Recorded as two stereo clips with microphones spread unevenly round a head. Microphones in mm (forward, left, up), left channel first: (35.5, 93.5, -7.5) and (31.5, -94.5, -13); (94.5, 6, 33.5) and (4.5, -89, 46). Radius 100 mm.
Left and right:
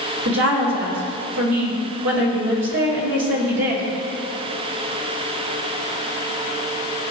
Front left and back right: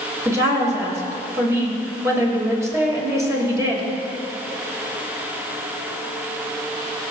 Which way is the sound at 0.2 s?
65° right.